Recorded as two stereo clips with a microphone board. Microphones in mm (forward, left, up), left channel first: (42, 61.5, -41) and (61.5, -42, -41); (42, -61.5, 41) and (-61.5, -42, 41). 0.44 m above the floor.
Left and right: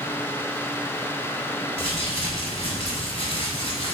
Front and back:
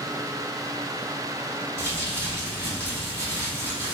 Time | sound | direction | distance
1.8 | crumpling | 105° left | 1.9 m